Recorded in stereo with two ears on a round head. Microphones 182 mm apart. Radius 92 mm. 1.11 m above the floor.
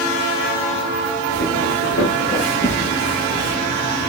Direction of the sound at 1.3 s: 70° left (ahead or behind).